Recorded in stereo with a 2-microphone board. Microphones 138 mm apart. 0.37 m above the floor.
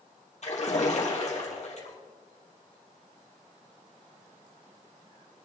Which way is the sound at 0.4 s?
55° left (ahead or behind).